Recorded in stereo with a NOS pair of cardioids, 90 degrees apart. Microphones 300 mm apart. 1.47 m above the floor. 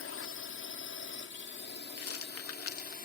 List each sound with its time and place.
0.0 s a drone: 50° left; by 3.0 s 30° left
2.0 s a rattle: 50° left